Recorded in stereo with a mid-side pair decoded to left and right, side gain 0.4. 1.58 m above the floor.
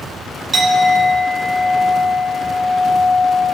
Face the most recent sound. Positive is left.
turn(degrees=-45)